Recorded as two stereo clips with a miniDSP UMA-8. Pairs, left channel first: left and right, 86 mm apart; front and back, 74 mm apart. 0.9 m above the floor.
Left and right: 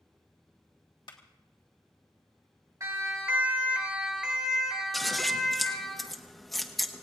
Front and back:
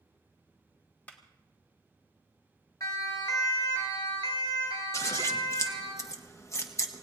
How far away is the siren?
About 2 m.